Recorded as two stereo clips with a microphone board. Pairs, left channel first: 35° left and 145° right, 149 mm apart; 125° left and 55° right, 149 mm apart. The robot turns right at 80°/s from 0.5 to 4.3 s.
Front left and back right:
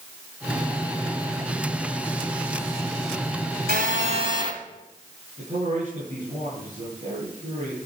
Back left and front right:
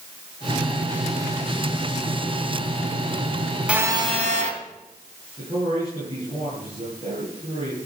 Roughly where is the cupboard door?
No cupboard door in this recording.